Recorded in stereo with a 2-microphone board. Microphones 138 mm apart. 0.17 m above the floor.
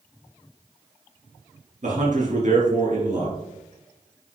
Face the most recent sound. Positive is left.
turn(degrees=-60)  # may be behind; listen again after turning